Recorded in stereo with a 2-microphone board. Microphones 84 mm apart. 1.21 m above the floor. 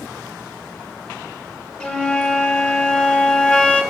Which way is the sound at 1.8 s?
10° left (ahead or behind).